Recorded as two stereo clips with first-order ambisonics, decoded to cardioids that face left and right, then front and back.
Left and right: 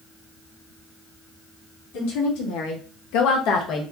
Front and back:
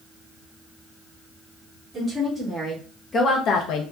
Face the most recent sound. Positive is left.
turn(degrees=30)